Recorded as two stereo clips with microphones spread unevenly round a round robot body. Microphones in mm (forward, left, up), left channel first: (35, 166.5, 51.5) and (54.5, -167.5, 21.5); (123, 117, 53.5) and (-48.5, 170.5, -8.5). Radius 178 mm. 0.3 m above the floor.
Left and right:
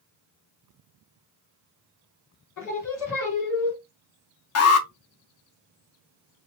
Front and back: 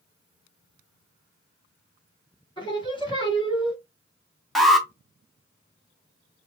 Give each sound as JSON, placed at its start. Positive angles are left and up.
{"t": 2.6, "sound": "singing", "azimuth_deg": 55, "distance_m": 2.5}
{"t": 4.5, "sound": "an alarm", "azimuth_deg": 100, "distance_m": 1.1}